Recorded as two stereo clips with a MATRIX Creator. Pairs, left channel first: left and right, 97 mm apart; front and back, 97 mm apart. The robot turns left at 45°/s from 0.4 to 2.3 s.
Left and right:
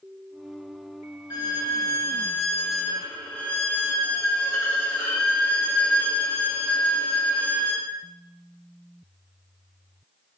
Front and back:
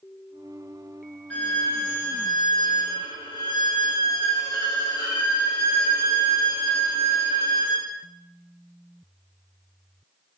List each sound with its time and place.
1.3 s a violin: 70° left, 0.6 m; by 7.9 s 25° left, 0.6 m